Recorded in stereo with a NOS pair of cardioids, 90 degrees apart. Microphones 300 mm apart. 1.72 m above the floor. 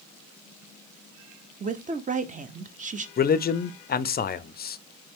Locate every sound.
1.6 s a woman speaking: 25° right, 0.9 m
3.2 s a man speaking: 30° left, 0.5 m